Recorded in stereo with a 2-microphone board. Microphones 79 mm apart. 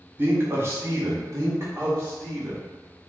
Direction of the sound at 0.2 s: 30° right (ahead or behind).